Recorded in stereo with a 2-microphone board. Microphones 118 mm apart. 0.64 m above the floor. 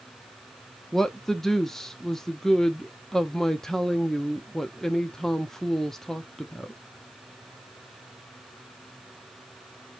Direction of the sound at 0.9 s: 5° left (ahead or behind).